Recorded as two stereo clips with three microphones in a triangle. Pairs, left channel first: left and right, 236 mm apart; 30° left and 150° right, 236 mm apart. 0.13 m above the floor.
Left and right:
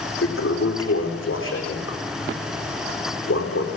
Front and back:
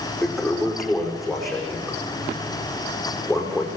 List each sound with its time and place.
0.2 s a toilet flushing: 120° left, 5.5 m